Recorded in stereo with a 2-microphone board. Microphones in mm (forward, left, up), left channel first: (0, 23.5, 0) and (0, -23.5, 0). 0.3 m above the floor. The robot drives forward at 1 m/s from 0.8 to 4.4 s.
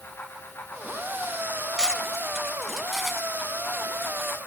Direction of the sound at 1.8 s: 15° right (ahead or behind).